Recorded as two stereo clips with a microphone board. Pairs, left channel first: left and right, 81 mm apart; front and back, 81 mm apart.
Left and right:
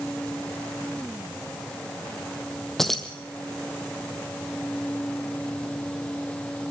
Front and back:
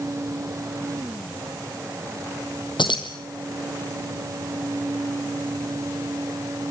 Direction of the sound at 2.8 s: 5° left.